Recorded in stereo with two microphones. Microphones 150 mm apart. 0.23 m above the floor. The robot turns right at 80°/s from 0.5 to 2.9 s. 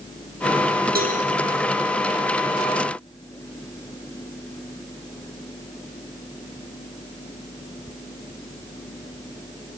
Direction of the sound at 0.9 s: 85° right.